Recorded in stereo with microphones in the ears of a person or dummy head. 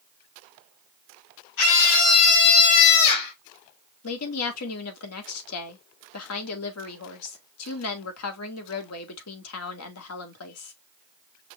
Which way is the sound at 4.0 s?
85° left.